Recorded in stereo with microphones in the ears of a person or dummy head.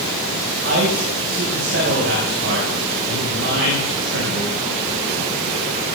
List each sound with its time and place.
0.6 s a man speaking: 75° right (ahead or behind), 6 m